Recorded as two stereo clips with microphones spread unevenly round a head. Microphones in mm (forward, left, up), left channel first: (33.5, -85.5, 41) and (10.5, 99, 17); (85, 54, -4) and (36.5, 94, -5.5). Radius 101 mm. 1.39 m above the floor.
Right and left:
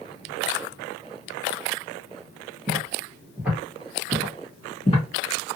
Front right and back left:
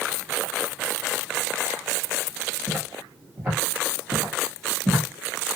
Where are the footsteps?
165° left, 1.6 m; by 5.0 s 105° right, 1.6 m.